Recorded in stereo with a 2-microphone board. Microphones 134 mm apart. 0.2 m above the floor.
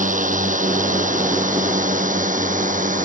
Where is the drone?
80° right.